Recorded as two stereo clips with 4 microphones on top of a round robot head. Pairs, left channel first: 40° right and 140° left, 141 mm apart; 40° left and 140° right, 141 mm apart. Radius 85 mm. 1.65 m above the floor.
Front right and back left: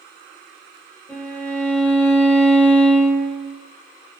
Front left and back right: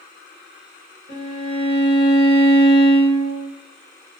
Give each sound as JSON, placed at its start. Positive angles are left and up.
{"t": 1.1, "sound": "a violin", "azimuth_deg": 35, "distance_m": 0.9}